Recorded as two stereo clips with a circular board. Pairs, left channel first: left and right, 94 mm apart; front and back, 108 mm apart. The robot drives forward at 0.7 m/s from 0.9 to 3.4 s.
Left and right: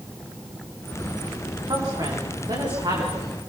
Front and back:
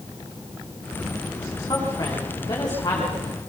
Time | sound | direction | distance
1.7 | a woman speaking | 45° right | 9.5 m